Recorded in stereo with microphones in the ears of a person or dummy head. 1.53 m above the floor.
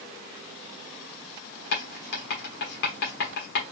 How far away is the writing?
About 1.3 m.